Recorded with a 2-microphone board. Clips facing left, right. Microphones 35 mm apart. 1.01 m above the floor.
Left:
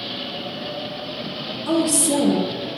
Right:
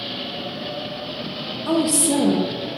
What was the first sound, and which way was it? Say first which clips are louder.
A woman speaking: even; 25° right (ahead or behind).